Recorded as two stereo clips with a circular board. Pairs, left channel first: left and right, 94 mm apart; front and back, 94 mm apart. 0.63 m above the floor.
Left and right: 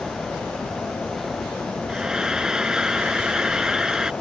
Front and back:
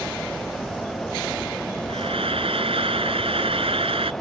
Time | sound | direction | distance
1.9 | frying | 170° right | ?